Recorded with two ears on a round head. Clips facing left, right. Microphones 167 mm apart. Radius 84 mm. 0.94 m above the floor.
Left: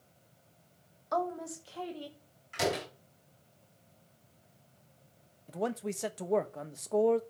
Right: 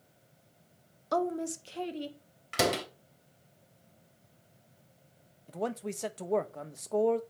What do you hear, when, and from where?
1.1 s a woman speaking: 40° right (ahead or behind), 1.1 m; by 2.2 s 25° right (ahead or behind), 2 m
2.5 s a door slam: 75° right (ahead or behind), 3.5 m
5.5 s a man speaking: centre (ahead or behind), 0.7 m